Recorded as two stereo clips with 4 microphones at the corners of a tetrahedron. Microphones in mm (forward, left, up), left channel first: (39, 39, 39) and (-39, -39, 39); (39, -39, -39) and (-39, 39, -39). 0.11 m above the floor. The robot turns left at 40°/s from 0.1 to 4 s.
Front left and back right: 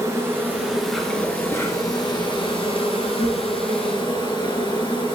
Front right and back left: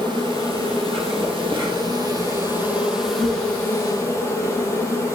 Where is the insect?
165° left, 1.4 m; by 5.1 s 10° left, 1.4 m.